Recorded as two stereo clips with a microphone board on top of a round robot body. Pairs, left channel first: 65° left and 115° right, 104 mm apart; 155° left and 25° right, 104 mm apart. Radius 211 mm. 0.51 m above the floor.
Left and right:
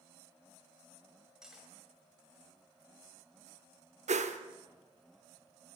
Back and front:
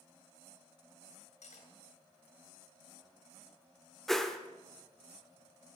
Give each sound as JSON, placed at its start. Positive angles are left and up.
{"t": 1.4, "sound": "cutlery clinking", "azimuth_deg": 165, "distance_m": 2.0}
{"t": 4.1, "sound": "a whoosh", "azimuth_deg": -115, "distance_m": 0.9}